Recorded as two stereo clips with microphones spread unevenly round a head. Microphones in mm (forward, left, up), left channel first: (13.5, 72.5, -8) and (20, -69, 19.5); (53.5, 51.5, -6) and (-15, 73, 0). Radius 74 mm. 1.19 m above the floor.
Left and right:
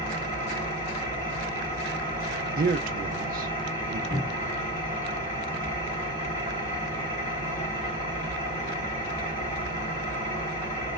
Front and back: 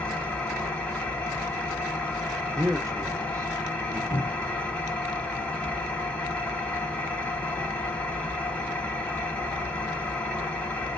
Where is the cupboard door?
35° left, 1.6 m.